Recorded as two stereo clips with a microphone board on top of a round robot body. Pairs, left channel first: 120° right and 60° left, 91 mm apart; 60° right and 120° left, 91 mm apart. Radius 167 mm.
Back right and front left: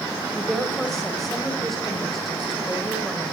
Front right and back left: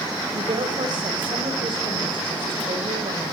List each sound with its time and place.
0.3 s a woman speaking: 155° left, 5.5 m